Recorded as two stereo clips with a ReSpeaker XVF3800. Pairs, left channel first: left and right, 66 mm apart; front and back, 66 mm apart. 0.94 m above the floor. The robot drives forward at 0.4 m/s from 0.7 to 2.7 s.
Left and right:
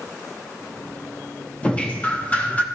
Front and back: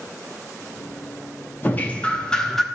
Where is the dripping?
30° left, 0.8 m; by 2.6 s 80° left, 0.7 m.